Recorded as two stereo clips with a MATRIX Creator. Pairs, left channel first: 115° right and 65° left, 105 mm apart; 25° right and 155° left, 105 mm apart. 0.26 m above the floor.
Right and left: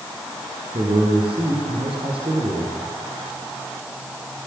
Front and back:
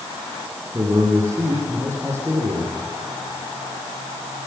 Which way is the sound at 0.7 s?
95° left.